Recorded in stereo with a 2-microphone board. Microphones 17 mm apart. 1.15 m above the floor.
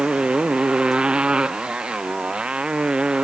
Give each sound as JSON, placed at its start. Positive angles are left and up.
{"t": 0.0, "sound": "a motorcycle", "side_deg": -65}